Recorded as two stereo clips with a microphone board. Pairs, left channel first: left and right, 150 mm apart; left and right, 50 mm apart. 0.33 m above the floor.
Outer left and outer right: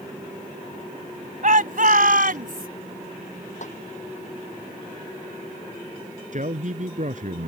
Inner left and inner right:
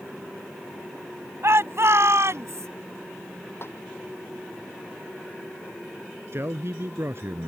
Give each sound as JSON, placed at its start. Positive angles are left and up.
{"t": 1.4, "sound": "a shout", "side_deg": -60}
{"t": 3.6, "sound": "a snare drum", "side_deg": 55}
{"t": 6.3, "sound": "a man speaking", "side_deg": -55}